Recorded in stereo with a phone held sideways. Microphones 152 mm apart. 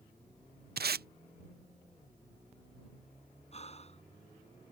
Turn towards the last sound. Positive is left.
turn(degrees=40)  # may be behind; listen again after turning